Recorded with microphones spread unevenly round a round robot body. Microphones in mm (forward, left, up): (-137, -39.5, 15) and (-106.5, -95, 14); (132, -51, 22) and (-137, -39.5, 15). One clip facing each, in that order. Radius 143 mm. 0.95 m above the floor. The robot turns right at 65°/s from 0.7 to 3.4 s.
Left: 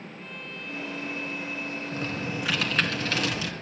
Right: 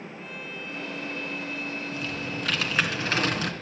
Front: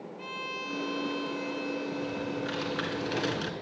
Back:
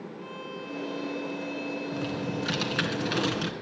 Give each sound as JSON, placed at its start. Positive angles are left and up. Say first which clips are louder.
{"t": 0.2, "sound": "a violin", "louder": "right 1 dB, back 3 dB", "azimuth_deg": 20, "distance_m": 0.6}
{"t": 1.9, "sound": "typing on a keyboard", "louder": "left 1 dB, back 2 dB", "azimuth_deg": 165, "distance_m": 1.8}